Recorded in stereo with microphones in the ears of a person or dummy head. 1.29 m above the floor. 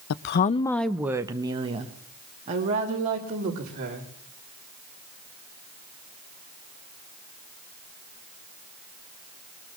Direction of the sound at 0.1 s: 70° left (ahead or behind).